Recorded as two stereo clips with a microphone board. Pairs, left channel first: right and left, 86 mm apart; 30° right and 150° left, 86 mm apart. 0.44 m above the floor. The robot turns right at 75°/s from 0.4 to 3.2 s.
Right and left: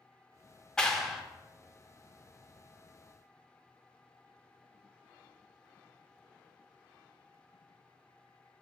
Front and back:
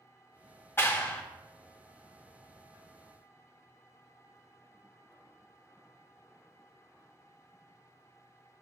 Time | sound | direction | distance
0.8 | a clap | 25° right | 0.7 m